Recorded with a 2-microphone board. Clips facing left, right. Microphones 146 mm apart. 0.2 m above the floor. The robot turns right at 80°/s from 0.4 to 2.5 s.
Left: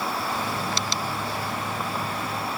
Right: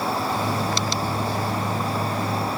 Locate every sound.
Only background noise.